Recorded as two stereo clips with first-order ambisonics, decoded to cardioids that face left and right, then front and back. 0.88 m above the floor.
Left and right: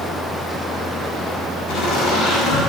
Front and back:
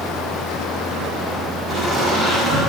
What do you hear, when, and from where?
1.7 s laughter: 85° left, 4.5 m